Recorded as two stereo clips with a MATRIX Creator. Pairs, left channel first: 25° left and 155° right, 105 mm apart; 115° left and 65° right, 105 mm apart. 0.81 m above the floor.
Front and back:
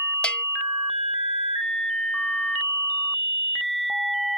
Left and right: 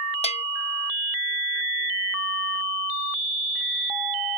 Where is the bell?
100° left.